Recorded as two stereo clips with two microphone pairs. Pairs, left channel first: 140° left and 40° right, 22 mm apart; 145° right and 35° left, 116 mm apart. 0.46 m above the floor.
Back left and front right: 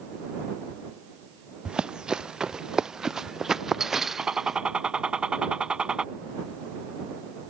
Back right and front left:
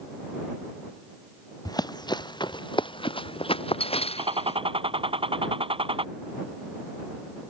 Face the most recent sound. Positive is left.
turn(degrees=0)